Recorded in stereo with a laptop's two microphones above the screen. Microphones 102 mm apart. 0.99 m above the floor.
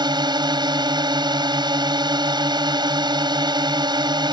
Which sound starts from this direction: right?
A drone, at 0.0 s.